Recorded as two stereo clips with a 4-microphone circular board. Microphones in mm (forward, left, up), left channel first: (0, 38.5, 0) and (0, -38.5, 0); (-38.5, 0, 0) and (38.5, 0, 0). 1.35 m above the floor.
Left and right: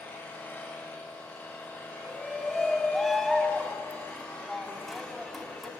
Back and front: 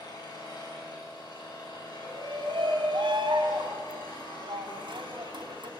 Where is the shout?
Straight ahead, 3 m.